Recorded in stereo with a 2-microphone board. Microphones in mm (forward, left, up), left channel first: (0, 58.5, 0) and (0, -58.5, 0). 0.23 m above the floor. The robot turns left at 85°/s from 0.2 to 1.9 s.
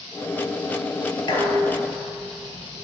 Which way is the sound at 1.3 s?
45° left.